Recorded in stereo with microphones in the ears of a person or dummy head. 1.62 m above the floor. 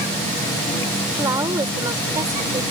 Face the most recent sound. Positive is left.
turn(degrees=-15)  # may be behind; listen again after turning